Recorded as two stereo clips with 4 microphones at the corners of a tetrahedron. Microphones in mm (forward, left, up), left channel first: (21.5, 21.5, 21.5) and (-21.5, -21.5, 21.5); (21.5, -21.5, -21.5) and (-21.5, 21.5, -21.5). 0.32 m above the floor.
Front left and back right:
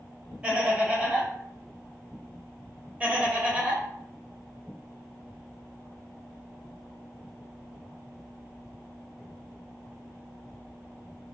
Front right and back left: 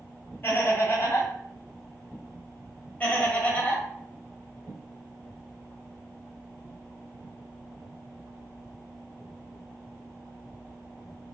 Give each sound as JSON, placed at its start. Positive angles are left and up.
{"t": 0.4, "sound": "laughter", "azimuth_deg": -70, "distance_m": 1.2}
{"t": 3.0, "sound": "laughter", "azimuth_deg": -85, "distance_m": 1.0}